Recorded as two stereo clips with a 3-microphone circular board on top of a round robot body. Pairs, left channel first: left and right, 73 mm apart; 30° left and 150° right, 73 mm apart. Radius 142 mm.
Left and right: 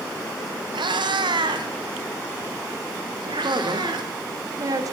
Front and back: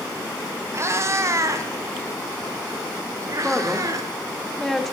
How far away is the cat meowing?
About 1.7 m.